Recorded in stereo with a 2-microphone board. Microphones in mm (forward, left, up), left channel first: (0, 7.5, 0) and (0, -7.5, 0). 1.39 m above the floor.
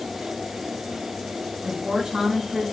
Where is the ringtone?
I don't hear a ringtone.